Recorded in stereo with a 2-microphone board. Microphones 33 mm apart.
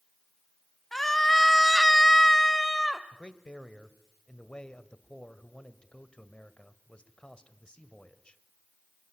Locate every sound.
0.9 s a scream: 5° left (ahead or behind), 1.8 m; by 3.0 s 10° left (ahead or behind), 1.3 m
3.1 s a man speaking: 30° left (ahead or behind), 1.5 m